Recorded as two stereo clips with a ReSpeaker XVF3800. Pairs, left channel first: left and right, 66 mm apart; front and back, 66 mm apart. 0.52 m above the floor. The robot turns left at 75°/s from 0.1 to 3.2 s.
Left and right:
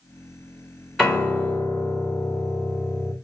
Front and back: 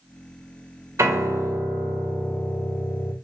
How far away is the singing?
No singing in this recording.